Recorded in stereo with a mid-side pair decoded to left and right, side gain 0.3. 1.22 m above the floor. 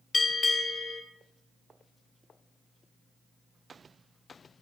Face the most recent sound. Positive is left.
turn(degrees=60)